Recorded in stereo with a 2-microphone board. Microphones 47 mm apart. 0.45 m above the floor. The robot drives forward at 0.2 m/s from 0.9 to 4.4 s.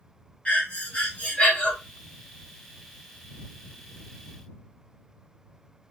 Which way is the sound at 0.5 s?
30° left (ahead or behind).